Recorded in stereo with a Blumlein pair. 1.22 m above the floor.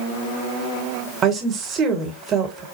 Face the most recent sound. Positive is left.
turn(degrees=-30)